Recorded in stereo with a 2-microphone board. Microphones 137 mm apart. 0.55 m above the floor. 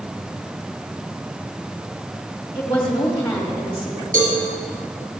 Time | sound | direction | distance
2.5 | a woman speaking | 20° left (ahead or behind) | 1.7 m
4.1 | a cowbell | 80° right | 4 m